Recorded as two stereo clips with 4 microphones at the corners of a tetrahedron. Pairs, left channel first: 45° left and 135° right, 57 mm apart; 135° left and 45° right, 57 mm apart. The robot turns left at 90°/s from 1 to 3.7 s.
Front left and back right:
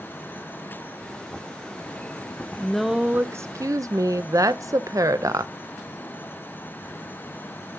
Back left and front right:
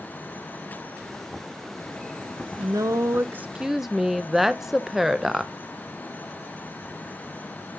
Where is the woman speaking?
25° right, 0.6 m; by 5.5 s 125° right, 0.6 m.